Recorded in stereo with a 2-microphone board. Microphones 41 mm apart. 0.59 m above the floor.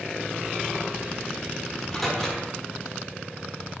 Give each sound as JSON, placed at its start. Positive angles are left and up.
{"t": 1.7, "sound": "a microwave", "side_deg": 10, "distance_m": 1.0}